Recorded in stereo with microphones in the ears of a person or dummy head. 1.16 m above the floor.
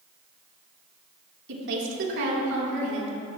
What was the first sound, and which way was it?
A woman speaking, 65° right (ahead or behind).